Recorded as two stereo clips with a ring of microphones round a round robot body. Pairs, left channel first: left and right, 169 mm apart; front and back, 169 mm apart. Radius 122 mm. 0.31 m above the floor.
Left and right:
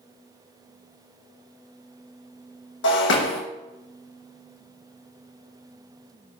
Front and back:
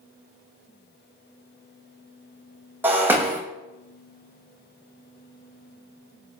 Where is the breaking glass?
100° left, 3 m.